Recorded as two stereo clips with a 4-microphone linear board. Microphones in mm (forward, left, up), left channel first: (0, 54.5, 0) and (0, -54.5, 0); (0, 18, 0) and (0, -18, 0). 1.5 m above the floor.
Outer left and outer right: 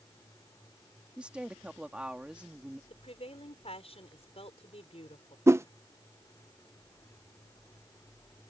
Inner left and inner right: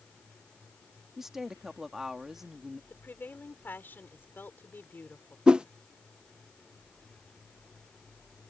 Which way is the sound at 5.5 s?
25° right (ahead or behind).